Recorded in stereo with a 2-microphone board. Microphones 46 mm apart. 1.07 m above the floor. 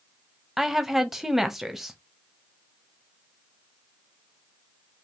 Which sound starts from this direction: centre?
A woman speaking, at 0.6 s.